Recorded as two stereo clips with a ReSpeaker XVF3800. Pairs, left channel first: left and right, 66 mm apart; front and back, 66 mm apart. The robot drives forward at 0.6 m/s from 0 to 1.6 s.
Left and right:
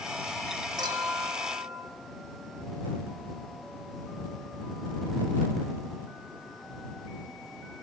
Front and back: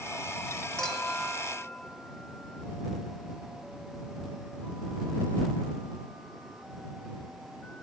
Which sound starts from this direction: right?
A clink, at 0.8 s.